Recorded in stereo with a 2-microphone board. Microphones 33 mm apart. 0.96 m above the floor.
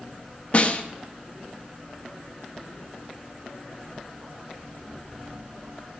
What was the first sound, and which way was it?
A snare drum, 40° left (ahead or behind).